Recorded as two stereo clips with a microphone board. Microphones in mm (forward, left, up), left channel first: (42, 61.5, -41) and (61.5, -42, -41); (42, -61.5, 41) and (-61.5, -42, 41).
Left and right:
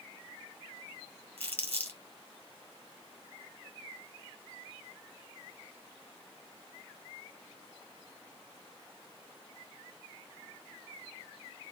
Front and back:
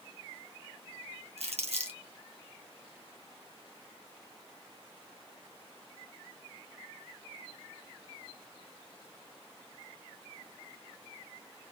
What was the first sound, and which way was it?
Crumpling, 175° left.